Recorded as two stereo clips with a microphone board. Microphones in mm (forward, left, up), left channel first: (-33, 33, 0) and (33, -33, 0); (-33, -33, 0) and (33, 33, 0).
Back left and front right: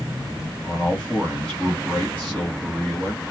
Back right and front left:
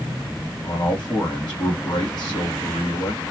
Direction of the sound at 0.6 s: 150° right.